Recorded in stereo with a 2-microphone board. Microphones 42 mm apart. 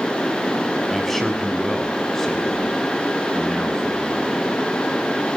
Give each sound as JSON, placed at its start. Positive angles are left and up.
{"t": 0.9, "sound": "a man speaking", "side_deg": 5, "distance_m": 4.5}